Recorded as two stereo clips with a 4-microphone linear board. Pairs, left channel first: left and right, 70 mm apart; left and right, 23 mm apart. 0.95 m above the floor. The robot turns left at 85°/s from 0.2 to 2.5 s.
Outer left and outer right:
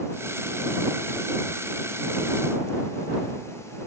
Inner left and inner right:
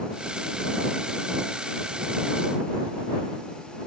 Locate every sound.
Only background noise.